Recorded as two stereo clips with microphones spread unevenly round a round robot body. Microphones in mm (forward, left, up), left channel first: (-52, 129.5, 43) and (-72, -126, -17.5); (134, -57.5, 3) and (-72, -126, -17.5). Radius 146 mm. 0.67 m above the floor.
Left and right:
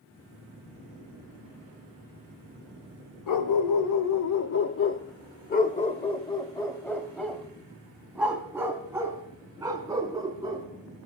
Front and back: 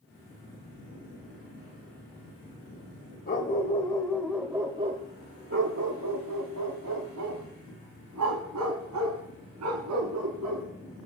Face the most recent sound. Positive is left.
turn(degrees=-170)